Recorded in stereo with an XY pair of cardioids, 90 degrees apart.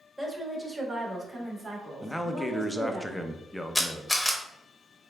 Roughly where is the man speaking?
Ahead.